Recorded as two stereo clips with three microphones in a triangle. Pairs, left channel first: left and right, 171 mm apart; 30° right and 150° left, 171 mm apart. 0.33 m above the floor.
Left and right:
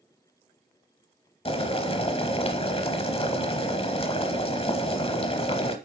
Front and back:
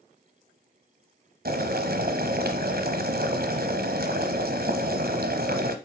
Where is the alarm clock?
I don't hear an alarm clock.